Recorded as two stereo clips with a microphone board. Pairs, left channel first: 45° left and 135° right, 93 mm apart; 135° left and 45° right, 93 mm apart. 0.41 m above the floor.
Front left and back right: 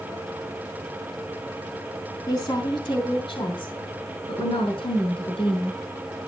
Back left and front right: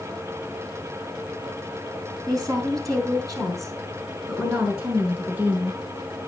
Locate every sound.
2.3 s a woman speaking: straight ahead, 3.5 m; by 5.8 s 20° left, 5.5 m